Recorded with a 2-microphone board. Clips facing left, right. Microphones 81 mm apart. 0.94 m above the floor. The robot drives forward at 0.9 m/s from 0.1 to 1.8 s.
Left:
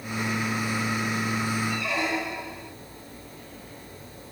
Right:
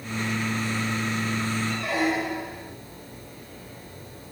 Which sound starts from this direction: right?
A squeak, at 1.7 s.